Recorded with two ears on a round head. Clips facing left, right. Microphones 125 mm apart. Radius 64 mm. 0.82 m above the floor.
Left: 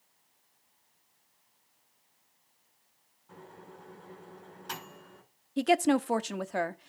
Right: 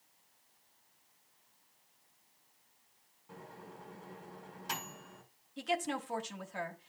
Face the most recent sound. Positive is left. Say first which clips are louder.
# left 11 dB
turn(degrees=65)  # may be behind; listen again after turning